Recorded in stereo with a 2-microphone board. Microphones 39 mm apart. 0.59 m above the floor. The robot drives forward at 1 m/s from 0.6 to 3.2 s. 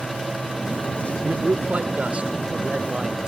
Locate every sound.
1.2 s a man speaking: 50° right (ahead or behind); by 3.3 s 20° right (ahead or behind)